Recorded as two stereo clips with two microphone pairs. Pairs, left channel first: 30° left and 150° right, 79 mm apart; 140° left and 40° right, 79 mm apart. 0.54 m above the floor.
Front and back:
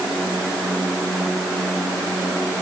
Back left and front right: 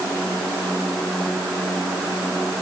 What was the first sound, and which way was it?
Only background noise.